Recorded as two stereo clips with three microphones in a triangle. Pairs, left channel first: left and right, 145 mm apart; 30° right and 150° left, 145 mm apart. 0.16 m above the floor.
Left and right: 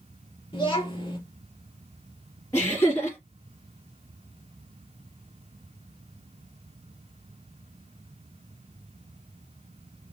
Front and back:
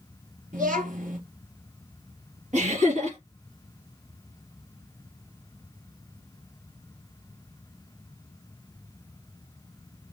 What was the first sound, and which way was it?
A child speaking, 140° left.